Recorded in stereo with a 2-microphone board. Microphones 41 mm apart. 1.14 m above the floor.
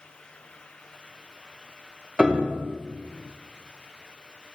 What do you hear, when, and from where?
2.2 s a piano: 20° right (ahead or behind), 0.6 m